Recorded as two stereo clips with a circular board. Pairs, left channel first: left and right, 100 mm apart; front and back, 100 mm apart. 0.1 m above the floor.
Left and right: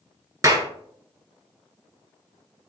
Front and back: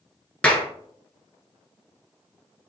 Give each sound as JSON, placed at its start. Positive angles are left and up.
{"t": 0.4, "sound": "a clap", "azimuth_deg": -70, "distance_m": 1.3}